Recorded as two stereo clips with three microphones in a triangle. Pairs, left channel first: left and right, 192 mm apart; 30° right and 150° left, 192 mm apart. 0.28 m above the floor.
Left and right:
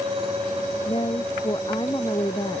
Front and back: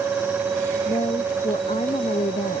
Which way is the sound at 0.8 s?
30° left.